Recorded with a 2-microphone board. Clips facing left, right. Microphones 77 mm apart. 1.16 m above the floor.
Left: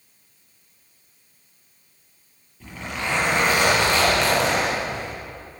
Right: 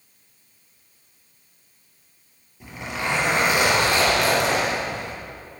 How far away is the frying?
I don't hear frying.